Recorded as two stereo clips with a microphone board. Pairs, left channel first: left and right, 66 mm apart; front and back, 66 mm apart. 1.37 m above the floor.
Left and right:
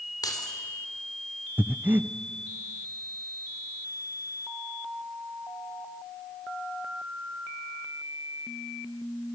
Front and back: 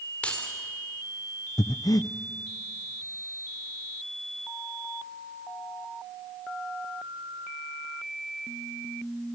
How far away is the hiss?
I don't hear a hiss.